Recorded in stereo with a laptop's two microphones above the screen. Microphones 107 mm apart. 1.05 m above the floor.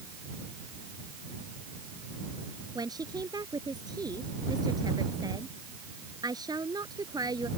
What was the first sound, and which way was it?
A woman speaking, 40° right (ahead or behind).